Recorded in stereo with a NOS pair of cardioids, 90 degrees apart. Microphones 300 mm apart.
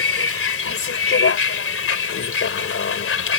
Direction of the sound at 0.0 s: 45° left.